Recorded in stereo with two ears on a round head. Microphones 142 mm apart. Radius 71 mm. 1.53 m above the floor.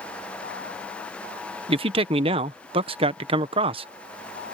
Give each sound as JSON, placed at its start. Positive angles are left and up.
{"t": 1.7, "sound": "a man speaking", "side_deg": -35}